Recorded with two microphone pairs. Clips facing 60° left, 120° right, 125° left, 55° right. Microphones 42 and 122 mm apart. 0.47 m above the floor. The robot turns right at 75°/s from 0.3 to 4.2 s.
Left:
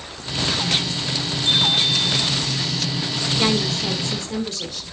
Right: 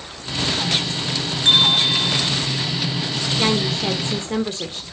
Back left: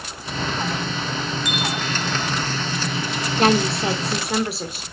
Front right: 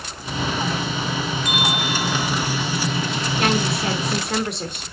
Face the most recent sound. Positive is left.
turn(degrees=-150)